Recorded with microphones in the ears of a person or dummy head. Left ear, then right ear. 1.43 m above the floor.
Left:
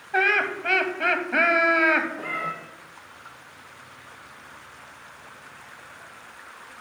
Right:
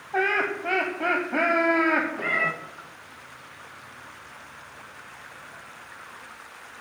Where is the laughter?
60° left (ahead or behind), 0.8 m.